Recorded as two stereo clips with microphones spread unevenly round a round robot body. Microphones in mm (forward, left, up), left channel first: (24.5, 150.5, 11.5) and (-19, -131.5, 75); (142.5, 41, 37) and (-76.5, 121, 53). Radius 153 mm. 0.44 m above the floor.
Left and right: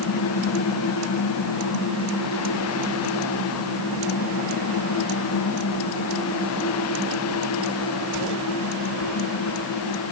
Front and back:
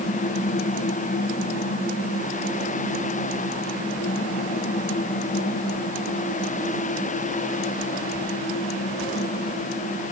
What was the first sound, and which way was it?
Only background noise.